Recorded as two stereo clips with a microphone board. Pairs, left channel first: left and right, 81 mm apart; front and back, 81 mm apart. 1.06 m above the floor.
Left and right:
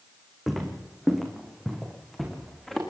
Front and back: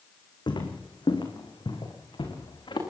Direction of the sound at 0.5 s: 5° right.